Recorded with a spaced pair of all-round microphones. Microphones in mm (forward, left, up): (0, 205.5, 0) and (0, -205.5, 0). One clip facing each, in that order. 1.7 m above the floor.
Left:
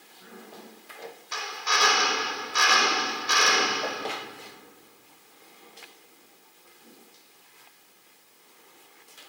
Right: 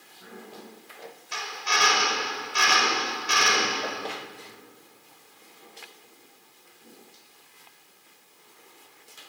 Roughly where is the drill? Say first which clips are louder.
Right 1 dB; right.